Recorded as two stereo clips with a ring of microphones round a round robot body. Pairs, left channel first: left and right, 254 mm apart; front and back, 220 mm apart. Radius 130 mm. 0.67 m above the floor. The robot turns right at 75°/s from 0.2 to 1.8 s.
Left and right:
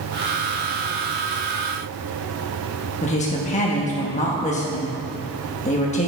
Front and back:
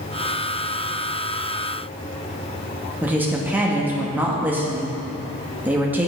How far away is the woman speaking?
About 1.0 m.